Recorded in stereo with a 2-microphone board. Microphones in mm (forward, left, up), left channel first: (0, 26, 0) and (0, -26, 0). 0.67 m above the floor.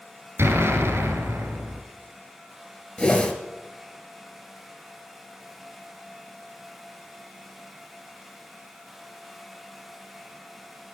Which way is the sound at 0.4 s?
50° right (ahead or behind).